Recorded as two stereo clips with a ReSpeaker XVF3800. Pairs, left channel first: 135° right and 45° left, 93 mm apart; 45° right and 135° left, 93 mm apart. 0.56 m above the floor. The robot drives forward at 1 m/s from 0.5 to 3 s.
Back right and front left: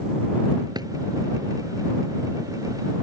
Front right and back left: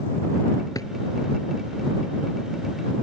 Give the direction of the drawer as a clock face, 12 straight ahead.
12 o'clock.